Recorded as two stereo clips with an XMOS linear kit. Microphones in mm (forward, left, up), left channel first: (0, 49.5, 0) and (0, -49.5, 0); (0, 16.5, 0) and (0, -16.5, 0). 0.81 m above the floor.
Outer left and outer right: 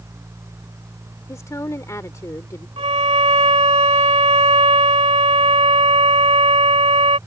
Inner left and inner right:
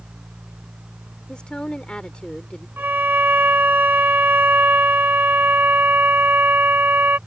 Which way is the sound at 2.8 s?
80° right.